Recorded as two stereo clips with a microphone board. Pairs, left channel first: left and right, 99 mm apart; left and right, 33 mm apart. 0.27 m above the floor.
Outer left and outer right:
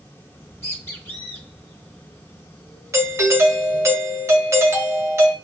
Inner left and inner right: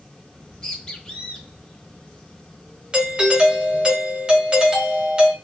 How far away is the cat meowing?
No cat meowing in this recording.